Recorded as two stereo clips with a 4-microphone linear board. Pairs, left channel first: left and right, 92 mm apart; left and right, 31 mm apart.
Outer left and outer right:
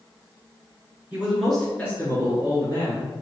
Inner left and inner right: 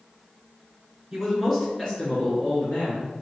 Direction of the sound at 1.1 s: 15° right (ahead or behind).